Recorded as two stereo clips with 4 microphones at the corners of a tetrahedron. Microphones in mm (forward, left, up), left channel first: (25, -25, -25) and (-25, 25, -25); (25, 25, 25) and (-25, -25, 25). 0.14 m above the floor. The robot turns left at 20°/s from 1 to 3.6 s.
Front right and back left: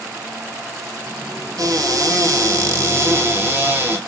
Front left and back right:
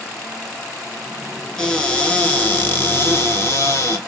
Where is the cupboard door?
125° left, 0.9 m; by 4.0 s 85° left, 0.9 m.